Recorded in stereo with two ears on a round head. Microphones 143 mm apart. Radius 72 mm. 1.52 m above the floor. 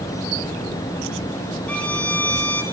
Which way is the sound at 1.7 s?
10° left (ahead or behind).